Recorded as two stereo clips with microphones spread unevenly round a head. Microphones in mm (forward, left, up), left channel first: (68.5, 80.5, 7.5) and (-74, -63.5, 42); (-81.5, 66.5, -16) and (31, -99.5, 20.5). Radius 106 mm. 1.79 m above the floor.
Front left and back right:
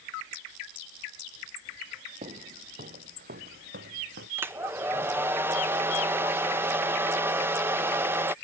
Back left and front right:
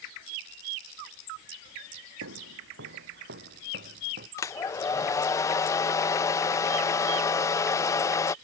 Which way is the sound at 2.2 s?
75° right.